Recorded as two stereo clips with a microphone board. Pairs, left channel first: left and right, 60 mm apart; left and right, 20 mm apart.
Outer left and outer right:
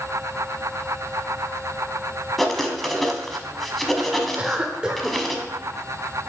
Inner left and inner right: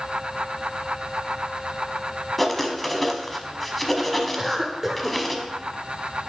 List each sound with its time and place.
2.4 s writing: 5° left (ahead or behind), 0.9 m
4.4 s a cough: 15° right (ahead or behind), 0.8 m